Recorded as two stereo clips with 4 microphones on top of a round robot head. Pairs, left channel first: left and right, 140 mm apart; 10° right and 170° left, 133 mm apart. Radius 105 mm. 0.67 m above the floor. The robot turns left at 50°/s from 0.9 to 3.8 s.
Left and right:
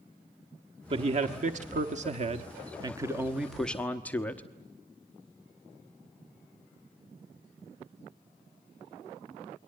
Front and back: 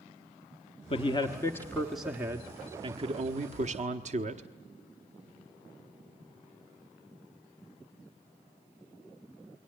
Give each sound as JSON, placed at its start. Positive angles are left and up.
{"t": 0.9, "sound": "a man speaking", "azimuth_deg": -45, "distance_m": 1.0}